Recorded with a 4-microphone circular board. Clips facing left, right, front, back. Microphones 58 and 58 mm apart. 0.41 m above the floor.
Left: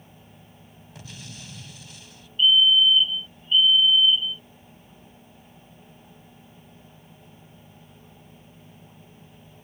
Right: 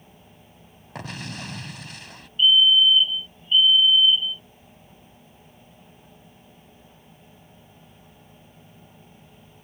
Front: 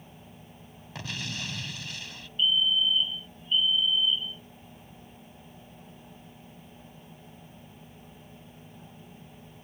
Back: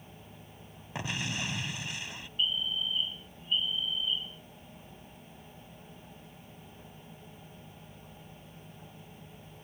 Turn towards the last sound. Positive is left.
turn(degrees=155)